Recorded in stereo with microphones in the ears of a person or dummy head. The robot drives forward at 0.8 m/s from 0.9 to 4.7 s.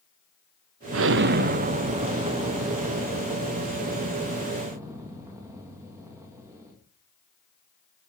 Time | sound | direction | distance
0.9 | an explosion | 70° right (ahead or behind) | 0.8 m